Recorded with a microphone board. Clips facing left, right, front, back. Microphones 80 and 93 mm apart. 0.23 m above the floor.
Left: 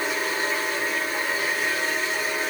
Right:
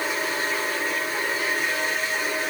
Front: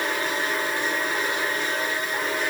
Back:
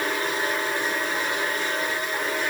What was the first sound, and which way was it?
Only background noise.